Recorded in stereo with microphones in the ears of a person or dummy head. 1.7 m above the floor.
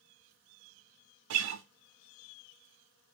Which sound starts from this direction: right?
A guitar, at 1.3 s.